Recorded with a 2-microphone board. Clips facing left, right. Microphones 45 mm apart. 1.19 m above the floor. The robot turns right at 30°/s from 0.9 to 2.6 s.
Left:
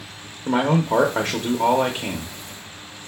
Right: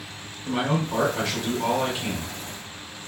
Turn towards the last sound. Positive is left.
turn(degrees=165)